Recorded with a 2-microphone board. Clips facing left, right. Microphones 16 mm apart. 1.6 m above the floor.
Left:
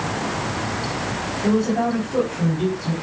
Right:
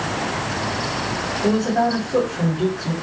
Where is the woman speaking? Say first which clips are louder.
Right 1 dB; 40° right (ahead or behind), 4 m.